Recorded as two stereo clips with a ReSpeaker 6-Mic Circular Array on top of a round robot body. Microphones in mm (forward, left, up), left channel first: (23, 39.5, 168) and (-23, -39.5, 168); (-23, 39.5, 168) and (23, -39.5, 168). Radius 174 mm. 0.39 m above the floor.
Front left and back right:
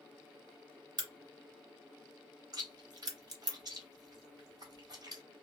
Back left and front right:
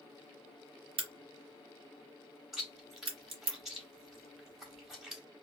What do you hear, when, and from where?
1.0 s a crack: 75° right, 1.2 m
2.5 s chewing: 150° right, 1.8 m